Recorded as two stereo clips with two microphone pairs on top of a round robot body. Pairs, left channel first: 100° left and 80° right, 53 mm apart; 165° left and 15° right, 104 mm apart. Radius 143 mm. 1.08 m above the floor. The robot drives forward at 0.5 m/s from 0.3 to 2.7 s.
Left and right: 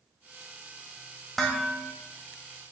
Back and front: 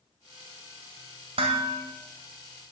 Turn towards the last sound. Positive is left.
turn(degrees=25)